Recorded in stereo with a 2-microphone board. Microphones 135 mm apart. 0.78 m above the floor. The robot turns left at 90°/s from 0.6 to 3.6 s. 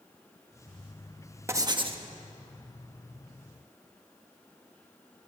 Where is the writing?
25° right, 1.2 m; by 2.0 s 75° right, 1.2 m.